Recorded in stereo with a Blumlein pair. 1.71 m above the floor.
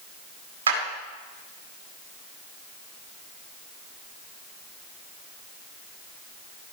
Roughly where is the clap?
Ahead right.